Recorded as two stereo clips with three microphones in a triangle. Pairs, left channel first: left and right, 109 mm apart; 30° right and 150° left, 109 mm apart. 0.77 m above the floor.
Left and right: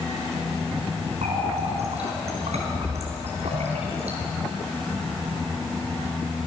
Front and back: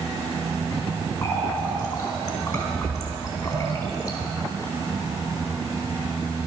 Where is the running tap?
85° right, 4 m.